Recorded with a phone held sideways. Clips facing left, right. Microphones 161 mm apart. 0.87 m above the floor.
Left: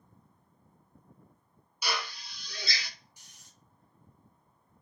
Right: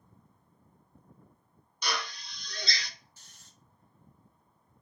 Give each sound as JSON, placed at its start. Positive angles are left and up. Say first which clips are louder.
{"t": 1.8, "sound": "a drill", "louder": "even", "side_deg": 5, "distance_m": 0.7}
{"t": 3.2, "sound": "snoring", "louder": "even", "side_deg": 15, "distance_m": 0.6}